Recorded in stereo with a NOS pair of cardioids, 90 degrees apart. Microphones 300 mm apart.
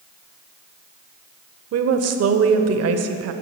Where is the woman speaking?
55° right, 0.6 m.